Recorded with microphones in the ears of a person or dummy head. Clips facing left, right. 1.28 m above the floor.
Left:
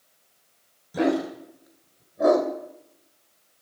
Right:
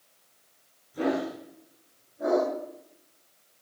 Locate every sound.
0.9 s a dog barking: 75° left (ahead or behind), 3.5 m; by 2.5 s 70° left (ahead or behind), 2.5 m